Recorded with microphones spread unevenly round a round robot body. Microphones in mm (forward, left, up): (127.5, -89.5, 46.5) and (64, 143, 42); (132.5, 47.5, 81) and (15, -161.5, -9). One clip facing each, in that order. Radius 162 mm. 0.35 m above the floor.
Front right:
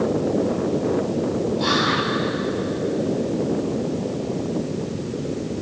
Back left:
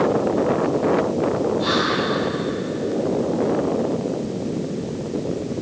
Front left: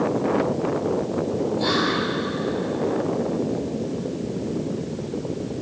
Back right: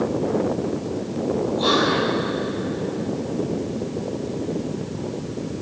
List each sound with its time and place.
1.6 s whispering: 40° right, 7 m